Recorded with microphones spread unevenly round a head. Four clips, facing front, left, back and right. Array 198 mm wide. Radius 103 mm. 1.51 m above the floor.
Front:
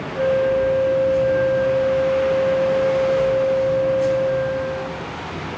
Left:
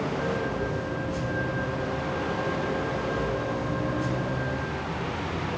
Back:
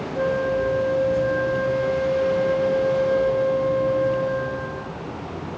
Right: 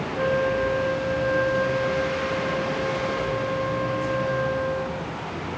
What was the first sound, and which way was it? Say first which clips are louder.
A flute: right 6 dB, front 5 dB; 140° right.